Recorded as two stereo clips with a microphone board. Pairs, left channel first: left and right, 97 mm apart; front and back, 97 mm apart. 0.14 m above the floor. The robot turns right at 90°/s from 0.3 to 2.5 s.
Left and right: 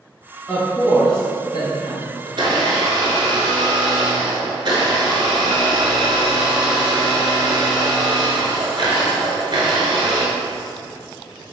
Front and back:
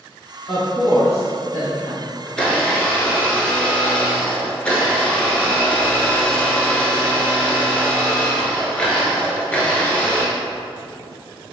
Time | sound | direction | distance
0.5 | a woman speaking | straight ahead | 1.5 m
2.3 | a blender | 90° right | 0.7 m